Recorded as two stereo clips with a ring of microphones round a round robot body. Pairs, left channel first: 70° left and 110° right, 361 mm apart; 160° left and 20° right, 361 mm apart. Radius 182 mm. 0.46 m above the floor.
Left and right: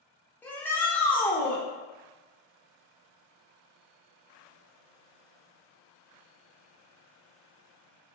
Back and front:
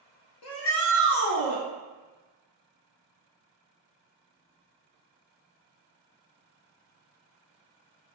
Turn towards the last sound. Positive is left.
turn(degrees=150)